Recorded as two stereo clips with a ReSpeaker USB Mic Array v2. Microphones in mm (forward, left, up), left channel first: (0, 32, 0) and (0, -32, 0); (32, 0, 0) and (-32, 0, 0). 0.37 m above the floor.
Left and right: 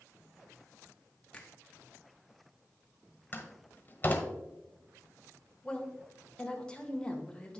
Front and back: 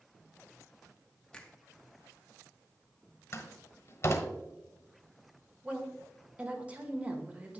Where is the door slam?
40° left, 1.2 m.